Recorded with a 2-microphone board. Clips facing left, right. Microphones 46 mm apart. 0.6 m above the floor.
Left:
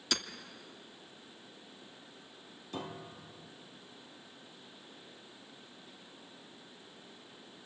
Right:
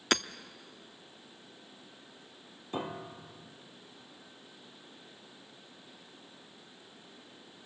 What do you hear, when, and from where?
0.1 s hammering: 50° right (ahead or behind), 0.7 m
2.7 s a piano: 25° right (ahead or behind), 0.7 m